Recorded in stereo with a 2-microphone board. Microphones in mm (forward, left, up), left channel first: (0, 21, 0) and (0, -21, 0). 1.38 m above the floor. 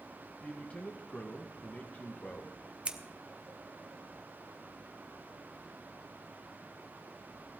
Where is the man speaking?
35° left (ahead or behind), 1.7 m.